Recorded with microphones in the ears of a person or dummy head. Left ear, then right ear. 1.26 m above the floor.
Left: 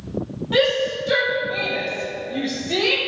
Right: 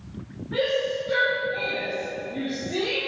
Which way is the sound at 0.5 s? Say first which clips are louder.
Left 5 dB; 65° left (ahead or behind).